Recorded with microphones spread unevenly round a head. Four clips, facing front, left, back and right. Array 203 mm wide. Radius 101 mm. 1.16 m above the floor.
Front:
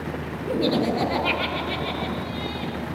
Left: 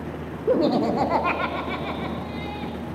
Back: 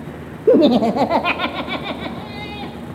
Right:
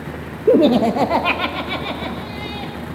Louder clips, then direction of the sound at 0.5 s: Right 7 dB, back 11 dB; 140° right.